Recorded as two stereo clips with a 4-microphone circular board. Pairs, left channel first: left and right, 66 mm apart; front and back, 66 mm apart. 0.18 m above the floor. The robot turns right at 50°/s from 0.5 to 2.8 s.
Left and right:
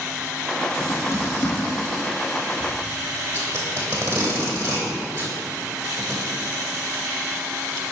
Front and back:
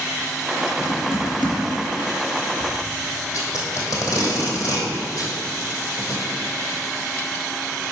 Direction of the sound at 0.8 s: 35° left.